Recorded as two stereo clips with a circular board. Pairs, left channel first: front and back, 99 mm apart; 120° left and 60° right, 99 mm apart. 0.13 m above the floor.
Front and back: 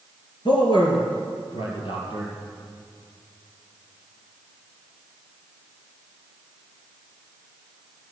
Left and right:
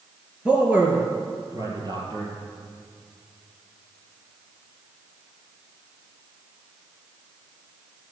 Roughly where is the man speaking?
Ahead.